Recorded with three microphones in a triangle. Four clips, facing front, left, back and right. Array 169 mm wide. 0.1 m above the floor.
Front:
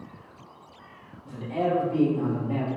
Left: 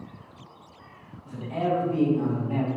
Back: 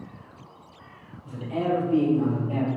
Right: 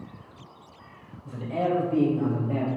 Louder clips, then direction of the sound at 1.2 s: Even, even; 110° right.